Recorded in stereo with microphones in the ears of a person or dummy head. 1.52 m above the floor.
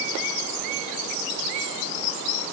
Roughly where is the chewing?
No chewing in this recording.